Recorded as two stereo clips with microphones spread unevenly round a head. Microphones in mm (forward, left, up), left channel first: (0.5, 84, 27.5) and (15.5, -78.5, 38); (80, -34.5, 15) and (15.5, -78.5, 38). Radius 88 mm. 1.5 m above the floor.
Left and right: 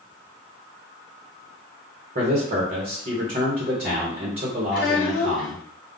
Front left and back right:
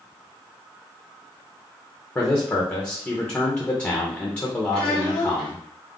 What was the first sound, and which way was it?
A man speaking, 35° right.